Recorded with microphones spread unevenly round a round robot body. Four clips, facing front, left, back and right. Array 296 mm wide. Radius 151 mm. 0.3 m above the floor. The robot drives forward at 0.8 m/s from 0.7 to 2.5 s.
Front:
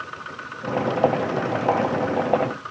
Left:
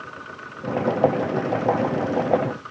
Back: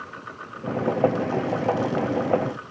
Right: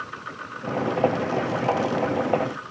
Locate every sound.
Only background noise.